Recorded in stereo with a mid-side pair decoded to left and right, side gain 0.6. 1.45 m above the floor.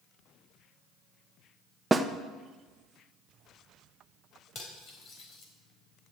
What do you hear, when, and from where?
1.9 s a snare drum: 15° right, 1.1 m
4.5 s cutlery clinking: 50° left, 4 m